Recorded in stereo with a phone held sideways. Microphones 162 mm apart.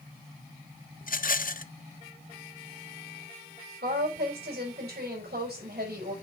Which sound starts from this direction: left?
A rattle, at 1.0 s.